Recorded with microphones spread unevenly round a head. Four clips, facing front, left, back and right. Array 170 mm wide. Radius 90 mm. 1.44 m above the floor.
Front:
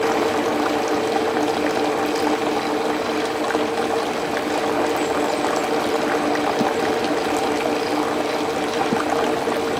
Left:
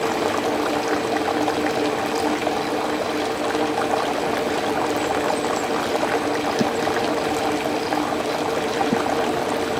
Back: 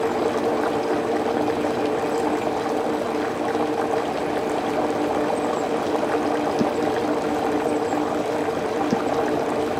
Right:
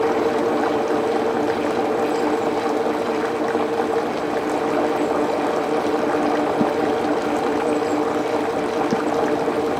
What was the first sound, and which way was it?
Only background noise.